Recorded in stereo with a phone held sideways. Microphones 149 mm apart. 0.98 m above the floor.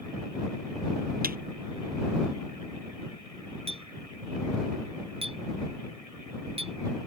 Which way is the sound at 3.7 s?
40° right (ahead or behind).